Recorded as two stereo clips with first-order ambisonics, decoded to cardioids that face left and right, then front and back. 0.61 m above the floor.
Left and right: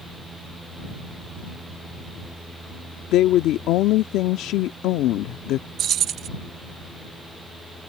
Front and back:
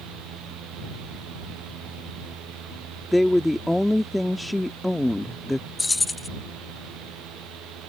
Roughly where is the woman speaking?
Left.